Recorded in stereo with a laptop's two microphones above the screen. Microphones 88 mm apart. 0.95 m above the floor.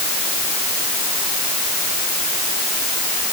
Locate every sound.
Only background noise.